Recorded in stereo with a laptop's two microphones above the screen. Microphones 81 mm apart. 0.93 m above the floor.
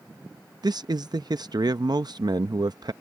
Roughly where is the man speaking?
Right.